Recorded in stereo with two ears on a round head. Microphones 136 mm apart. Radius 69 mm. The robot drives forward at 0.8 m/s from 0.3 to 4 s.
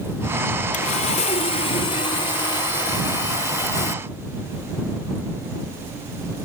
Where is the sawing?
50° left (ahead or behind); by 4.0 s 25° left (ahead or behind).